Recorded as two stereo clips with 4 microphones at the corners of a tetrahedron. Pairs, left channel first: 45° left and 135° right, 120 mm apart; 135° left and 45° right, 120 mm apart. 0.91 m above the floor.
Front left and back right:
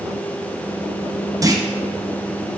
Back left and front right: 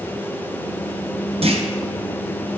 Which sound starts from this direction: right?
A clunk, at 1.4 s.